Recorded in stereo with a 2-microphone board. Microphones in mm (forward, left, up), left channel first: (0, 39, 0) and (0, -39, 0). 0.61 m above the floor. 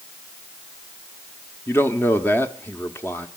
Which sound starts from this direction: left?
A man speaking, at 1.7 s.